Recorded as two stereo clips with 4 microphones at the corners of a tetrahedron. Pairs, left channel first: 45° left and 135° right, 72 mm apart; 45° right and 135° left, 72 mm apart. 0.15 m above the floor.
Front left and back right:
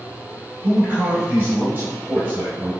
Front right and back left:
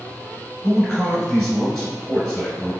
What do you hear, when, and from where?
0.6 s a man speaking: 120° right, 1.8 m